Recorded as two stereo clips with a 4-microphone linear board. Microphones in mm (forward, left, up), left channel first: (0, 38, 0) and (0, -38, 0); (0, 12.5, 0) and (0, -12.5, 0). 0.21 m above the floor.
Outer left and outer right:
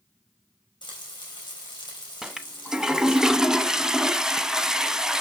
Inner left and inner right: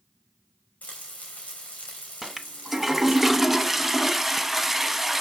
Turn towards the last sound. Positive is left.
turn(degrees=-5)  # may be behind; listen again after turning